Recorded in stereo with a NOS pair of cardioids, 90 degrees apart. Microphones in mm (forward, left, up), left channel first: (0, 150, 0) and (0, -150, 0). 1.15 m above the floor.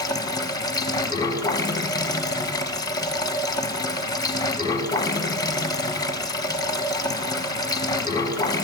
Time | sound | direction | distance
0.0 | running water | 10° left | 0.8 m